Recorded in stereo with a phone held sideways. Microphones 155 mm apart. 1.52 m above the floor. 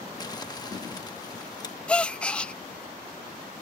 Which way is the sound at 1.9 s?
5° left (ahead or behind).